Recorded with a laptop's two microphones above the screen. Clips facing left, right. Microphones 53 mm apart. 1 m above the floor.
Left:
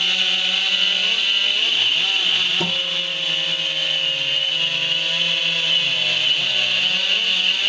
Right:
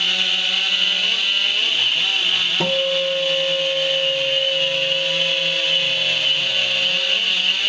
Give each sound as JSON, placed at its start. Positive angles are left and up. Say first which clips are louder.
{"t": 2.6, "sound": "a guitar", "louder": "right 4 dB", "side_deg": -40, "distance_m": 0.9}